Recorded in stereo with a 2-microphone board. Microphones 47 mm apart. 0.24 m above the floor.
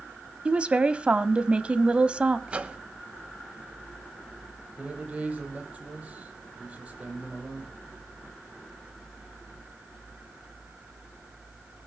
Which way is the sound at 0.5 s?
25° right (ahead or behind).